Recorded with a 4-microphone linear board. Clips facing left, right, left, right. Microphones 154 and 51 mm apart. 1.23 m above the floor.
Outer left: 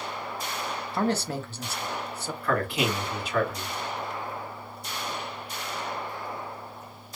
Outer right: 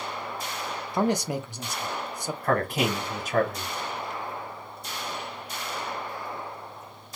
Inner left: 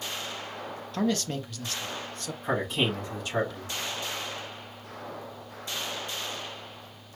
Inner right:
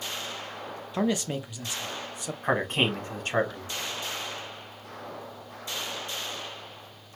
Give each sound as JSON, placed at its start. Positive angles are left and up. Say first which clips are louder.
{"t": 0.9, "sound": "a man speaking", "louder": "outer right 2 dB, inner right 1 dB", "side_deg": -15, "distance_m": 0.5}
{"t": 2.4, "sound": "a man speaking", "louder": "outer right 1 dB, inner right 2 dB", "side_deg": -50, "distance_m": 1.3}